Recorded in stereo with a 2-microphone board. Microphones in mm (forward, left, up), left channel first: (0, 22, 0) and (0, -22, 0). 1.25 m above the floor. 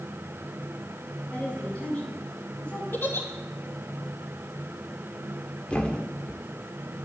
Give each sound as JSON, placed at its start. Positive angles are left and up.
{"t": 1.3, "sound": "a woman speaking", "side_deg": 30, "distance_m": 9.5}
{"t": 2.9, "sound": "a giggle", "side_deg": 60, "distance_m": 2.5}
{"t": 5.7, "sound": "a thud", "side_deg": 20, "distance_m": 1.4}